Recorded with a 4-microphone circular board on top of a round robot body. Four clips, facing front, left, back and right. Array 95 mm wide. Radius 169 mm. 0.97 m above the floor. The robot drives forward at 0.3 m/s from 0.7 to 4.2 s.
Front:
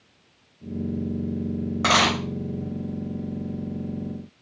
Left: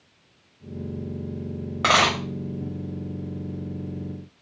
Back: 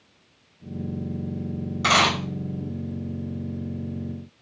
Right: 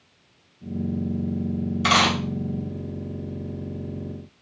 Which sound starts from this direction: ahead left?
A dropped coin, at 1.8 s.